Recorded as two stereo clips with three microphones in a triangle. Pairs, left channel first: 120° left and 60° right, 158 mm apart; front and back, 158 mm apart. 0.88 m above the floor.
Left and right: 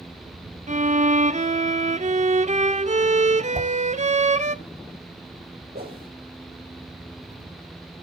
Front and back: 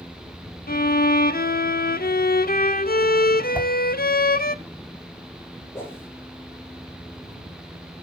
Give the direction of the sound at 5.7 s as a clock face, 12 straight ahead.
3 o'clock.